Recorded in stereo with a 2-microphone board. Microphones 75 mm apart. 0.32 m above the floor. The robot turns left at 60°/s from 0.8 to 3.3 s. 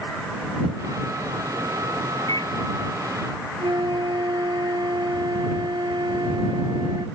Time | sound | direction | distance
2.3 | a microwave | 55° left (ahead or behind) | ?
3.6 | a flute | 80° right | ?